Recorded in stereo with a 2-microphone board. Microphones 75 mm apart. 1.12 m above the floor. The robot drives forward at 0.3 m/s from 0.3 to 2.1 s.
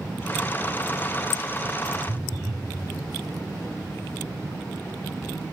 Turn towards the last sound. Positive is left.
turn(degrees=5)  # may be behind; listen again after turning